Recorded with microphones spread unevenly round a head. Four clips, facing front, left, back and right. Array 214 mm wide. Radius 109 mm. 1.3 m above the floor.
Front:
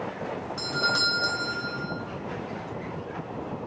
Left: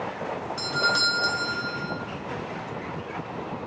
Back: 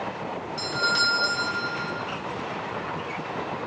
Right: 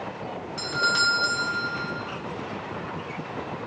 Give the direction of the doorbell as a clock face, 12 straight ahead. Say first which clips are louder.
Right 2 dB, back 3 dB; 10 o'clock.